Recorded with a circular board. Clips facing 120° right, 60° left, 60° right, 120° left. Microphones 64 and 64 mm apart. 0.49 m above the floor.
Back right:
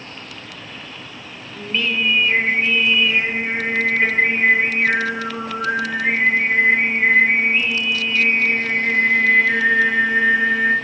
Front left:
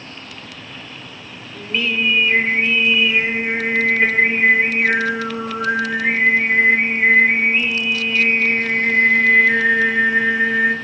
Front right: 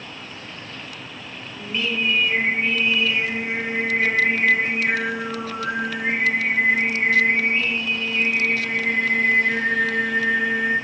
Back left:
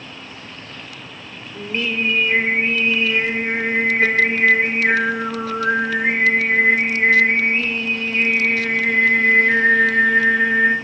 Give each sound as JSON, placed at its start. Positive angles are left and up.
{"t": 1.6, "sound": "singing", "azimuth_deg": 140, "distance_m": 1.0}